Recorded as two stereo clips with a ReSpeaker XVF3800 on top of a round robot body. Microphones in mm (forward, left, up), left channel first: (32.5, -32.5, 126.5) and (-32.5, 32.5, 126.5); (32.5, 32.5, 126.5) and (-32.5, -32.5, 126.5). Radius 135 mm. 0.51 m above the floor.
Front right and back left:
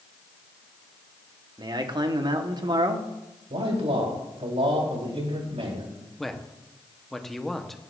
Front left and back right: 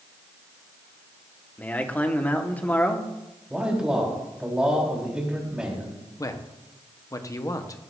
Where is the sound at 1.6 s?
115° left, 1.9 m.